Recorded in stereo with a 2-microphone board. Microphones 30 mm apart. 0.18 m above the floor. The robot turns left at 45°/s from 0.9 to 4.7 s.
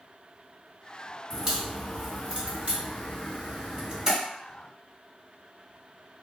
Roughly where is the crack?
Centre.